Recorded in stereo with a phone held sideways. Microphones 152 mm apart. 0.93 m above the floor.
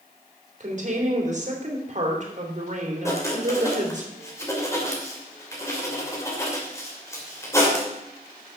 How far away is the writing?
About 2.5 m.